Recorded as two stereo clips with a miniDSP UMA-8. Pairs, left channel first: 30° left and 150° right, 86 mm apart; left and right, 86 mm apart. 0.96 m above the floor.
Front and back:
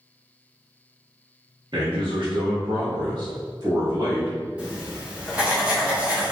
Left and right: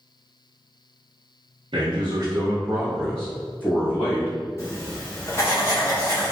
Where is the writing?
140° left, 1.2 m.